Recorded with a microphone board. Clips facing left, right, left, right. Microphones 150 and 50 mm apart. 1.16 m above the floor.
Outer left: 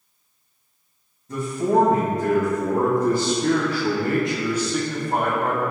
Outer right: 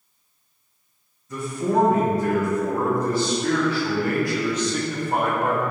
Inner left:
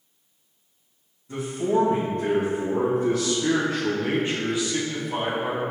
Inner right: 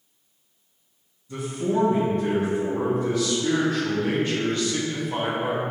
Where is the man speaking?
50° left (ahead or behind), 1.5 m; by 5.6 s 15° right (ahead or behind), 1.0 m.